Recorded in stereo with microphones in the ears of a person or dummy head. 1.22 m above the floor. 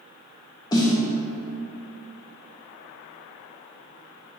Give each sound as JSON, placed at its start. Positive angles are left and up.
{"t": 0.7, "sound": "a snare drum", "side_deg": 20, "distance_m": 0.5}